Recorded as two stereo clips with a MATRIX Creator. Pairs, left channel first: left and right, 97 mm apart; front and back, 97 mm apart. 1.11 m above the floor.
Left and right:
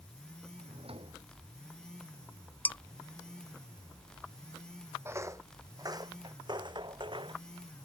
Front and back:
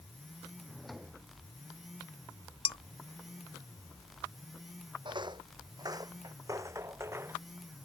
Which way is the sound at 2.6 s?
20° left.